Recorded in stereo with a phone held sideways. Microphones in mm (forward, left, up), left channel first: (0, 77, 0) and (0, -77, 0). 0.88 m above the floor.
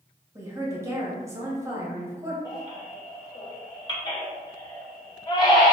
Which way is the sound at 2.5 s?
30° left (ahead or behind).